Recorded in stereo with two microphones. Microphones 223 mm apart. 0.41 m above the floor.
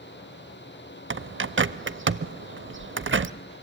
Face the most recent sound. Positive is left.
turn(degrees=-70)  # may be behind; listen again after turning